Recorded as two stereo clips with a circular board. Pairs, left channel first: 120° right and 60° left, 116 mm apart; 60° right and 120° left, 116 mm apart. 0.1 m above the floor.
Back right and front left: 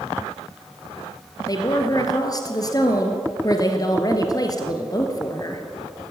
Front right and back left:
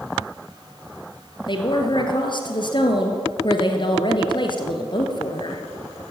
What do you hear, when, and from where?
1.5 s a woman speaking: 80° right, 1.6 m